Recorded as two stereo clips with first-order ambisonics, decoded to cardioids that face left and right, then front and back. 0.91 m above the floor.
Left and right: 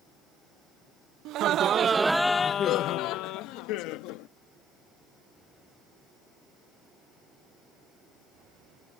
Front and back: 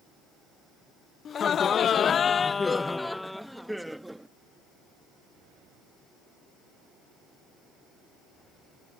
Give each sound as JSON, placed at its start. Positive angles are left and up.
{"t": 1.2, "sound": "laughter", "azimuth_deg": -60}